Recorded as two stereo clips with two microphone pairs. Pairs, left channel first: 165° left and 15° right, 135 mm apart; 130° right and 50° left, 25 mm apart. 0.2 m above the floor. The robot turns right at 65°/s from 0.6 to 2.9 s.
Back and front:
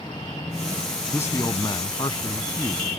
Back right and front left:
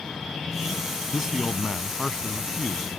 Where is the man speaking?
105° left; by 2.9 s 140° right.